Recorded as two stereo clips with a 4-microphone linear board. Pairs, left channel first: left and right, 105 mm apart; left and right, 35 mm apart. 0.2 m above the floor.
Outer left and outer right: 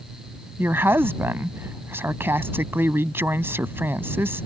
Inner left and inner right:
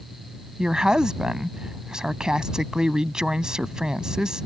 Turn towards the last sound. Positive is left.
turn(degrees=-25)  # may be behind; listen again after turning